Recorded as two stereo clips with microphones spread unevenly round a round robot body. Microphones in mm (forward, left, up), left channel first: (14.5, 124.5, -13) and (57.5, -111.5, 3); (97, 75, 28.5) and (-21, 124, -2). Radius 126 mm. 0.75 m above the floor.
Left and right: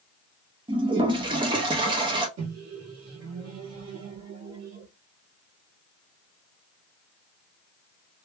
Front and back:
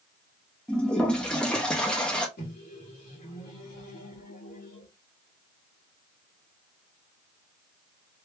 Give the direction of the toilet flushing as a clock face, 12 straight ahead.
4 o'clock.